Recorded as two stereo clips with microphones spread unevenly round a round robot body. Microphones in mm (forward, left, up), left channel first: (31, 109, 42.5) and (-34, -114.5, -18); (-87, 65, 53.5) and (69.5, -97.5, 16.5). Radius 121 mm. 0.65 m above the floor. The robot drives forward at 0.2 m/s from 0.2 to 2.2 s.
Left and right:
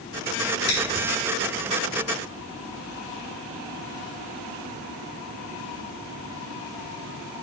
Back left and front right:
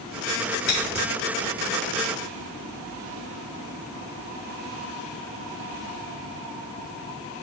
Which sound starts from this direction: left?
Scissors, at 0.7 s.